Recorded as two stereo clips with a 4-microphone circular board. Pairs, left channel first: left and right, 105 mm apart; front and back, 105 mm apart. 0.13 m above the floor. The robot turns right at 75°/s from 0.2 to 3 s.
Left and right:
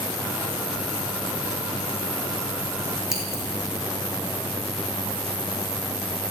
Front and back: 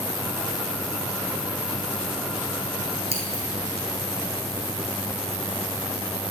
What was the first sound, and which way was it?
Scissors, 175° right.